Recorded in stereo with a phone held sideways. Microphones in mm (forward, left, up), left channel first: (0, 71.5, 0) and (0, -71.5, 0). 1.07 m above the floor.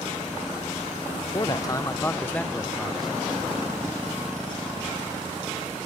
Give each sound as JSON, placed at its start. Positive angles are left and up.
{"t": 1.3, "sound": "a man speaking", "side_deg": 30}